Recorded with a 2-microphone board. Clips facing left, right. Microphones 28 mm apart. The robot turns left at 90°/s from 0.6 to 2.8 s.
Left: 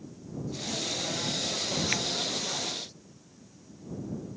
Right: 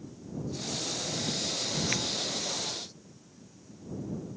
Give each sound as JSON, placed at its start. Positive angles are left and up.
{"t": 1.9, "sound": "a finger snap", "side_deg": 10}